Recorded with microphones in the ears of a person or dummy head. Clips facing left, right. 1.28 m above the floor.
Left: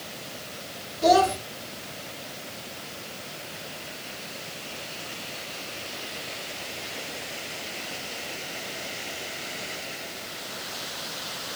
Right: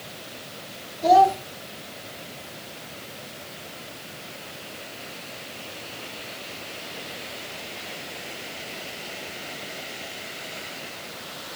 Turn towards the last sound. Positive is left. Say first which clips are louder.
# right 3 dB
turn(degrees=70)  # may be behind; listen again after turning